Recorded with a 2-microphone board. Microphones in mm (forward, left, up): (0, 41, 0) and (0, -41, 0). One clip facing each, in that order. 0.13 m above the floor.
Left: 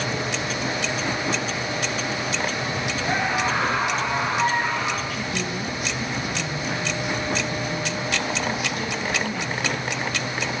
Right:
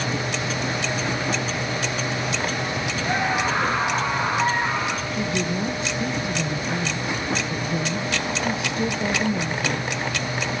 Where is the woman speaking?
25° right (ahead or behind), 2.5 m.